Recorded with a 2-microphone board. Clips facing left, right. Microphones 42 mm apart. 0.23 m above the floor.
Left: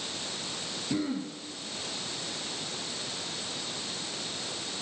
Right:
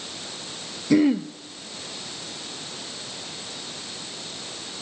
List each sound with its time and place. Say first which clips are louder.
0.9 s throat clearing: right 13 dB; 80° right, 1.0 m